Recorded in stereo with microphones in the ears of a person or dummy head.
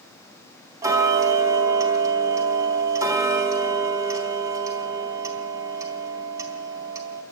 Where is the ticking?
20° right (ahead or behind), 4 m.